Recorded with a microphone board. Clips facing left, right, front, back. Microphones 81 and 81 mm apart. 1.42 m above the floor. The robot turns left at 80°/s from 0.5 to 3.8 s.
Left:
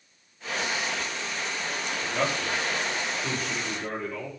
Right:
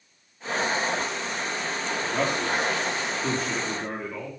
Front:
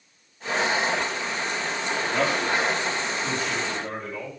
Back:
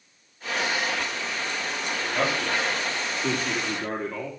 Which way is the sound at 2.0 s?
20° right.